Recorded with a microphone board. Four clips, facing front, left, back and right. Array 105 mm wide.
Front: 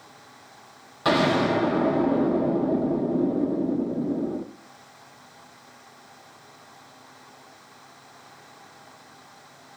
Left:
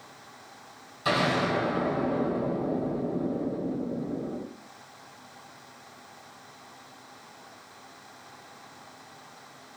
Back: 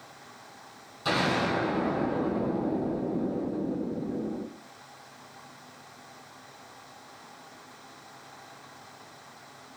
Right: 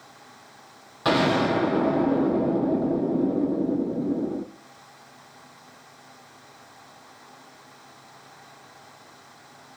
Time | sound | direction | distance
1.1 | an explosion | 45° right | 0.7 m